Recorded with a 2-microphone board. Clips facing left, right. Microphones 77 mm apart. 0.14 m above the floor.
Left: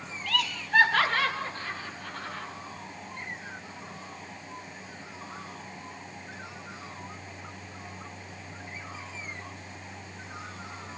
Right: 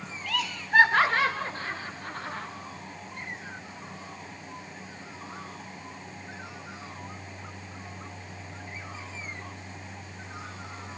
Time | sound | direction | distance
0.3 | laughter | 5° right (ahead or behind) | 1.0 m